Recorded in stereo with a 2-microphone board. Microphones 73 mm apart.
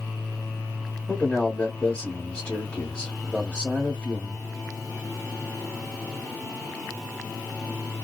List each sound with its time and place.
1.1 s a man speaking: 15° left (ahead or behind), 1.2 m